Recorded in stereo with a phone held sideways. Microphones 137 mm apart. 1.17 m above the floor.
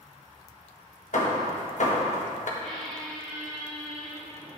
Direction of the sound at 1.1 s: 65° left (ahead or behind).